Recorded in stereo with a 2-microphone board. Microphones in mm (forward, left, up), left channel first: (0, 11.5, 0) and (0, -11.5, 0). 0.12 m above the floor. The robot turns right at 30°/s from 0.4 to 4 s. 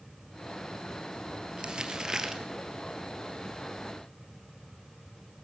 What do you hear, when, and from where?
1.6 s crumpling: 40° right (ahead or behind), 2.5 m; by 2.4 s 20° right (ahead or behind), 2.5 m